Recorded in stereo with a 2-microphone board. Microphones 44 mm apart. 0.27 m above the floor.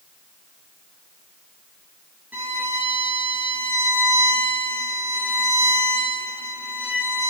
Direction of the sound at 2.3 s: 35° right (ahead or behind).